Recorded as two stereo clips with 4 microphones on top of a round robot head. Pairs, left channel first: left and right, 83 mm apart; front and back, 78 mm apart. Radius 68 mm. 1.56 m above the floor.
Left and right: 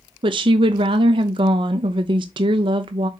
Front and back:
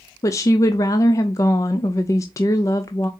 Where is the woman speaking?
60° right, 0.5 m.